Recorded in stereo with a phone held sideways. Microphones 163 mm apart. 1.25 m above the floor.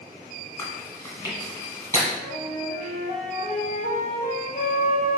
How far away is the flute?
About 0.7 m.